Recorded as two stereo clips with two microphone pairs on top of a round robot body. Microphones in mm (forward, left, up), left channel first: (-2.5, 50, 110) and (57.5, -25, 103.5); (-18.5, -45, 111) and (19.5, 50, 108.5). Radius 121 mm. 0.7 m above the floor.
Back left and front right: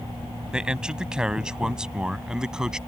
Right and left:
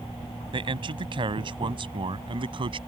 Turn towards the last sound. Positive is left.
turn(degrees=30)